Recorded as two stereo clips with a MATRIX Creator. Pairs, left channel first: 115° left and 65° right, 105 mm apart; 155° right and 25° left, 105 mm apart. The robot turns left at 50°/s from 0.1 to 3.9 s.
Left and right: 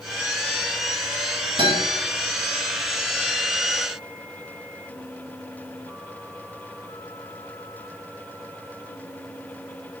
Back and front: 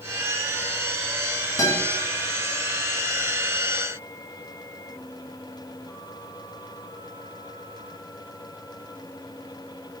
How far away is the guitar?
About 6 m.